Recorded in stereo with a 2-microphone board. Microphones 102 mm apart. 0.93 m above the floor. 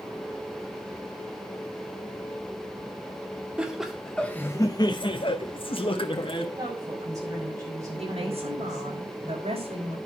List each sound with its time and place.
3.6 s laughter: 10° right (ahead or behind), 1.0 m; by 6.5 s 55° left (ahead or behind), 1.4 m
6.5 s a woman speaking: 40° right (ahead or behind), 7 m
8.0 s a woman speaking: 75° right (ahead or behind), 5 m